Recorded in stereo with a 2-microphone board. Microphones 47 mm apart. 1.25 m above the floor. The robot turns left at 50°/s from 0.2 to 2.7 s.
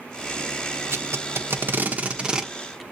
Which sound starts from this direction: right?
Tape being pulled, at 0.9 s.